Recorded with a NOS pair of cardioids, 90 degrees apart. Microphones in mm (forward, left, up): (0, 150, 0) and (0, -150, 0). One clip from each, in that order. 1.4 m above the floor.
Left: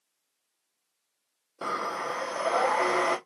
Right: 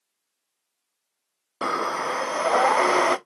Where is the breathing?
35° right, 0.7 m.